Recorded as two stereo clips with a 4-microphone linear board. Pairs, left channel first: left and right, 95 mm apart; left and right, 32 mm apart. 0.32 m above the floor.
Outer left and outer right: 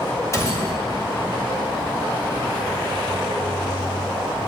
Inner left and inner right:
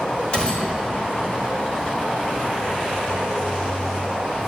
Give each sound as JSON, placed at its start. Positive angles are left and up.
{"t": 0.3, "sound": "a gunshot", "side_deg": 30, "distance_m": 1.5}